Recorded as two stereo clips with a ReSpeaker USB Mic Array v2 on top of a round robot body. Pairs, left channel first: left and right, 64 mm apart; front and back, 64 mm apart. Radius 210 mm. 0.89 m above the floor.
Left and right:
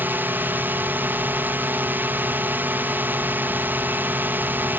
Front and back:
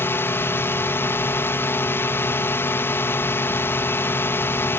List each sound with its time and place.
0.0 s a drone: 40° right